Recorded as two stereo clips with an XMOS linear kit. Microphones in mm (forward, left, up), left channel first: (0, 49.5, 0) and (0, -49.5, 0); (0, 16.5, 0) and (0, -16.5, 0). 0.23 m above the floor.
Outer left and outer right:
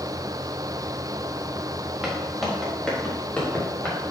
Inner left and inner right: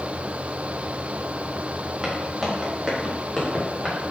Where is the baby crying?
I don't hear a baby crying.